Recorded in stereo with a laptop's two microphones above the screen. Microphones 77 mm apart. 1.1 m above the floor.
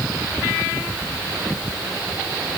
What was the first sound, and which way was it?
Only background noise.